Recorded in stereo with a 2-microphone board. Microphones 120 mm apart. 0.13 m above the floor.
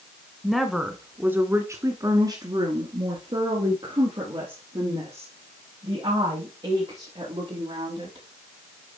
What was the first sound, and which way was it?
A woman speaking, centre (ahead or behind).